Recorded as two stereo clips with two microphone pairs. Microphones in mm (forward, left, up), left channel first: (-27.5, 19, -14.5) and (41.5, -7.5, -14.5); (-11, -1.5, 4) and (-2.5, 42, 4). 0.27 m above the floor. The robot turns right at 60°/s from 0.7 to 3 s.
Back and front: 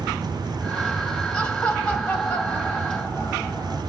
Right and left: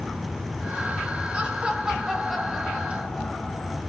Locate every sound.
1.3 s laughter: 100° left, 0.9 m; by 3.8 s 160° right, 0.9 m